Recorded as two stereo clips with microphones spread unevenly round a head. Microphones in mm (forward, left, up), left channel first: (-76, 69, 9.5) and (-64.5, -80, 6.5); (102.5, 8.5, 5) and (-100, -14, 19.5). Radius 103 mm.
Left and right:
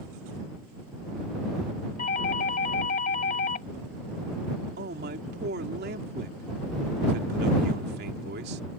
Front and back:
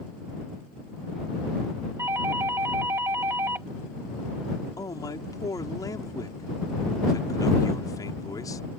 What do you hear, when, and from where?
2.0 s a doorbell: 110° left
4.8 s a man speaking: 65° right